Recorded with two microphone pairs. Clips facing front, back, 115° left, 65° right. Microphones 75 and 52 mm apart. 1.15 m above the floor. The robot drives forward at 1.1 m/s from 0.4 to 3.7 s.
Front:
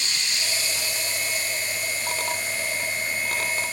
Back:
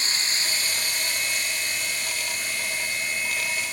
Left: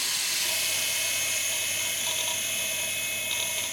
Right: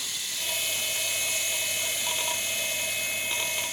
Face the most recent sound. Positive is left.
turn(degrees=170)